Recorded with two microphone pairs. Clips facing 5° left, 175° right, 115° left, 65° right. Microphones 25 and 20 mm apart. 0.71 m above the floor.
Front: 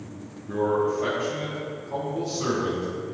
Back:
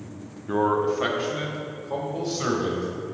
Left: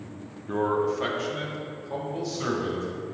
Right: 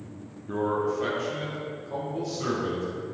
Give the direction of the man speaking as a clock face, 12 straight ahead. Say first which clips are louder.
Back 1 dB, left 2 dB; 6 o'clock.